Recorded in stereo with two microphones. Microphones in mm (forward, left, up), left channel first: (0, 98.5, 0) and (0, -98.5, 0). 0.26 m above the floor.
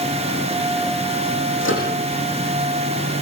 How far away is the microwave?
About 9 m.